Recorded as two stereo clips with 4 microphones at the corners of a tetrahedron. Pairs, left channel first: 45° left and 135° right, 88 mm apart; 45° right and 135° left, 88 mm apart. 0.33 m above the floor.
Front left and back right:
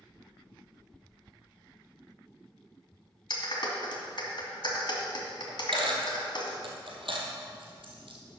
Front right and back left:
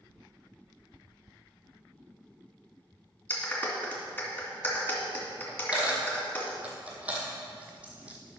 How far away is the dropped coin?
About 1.9 m.